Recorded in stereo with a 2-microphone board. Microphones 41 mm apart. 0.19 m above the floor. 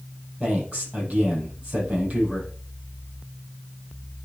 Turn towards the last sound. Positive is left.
turn(degrees=-30)  # may be behind; listen again after turning